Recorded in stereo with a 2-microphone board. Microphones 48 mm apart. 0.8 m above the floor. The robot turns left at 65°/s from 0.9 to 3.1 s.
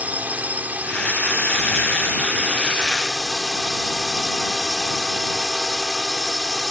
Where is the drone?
40° right; by 6.7 s straight behind.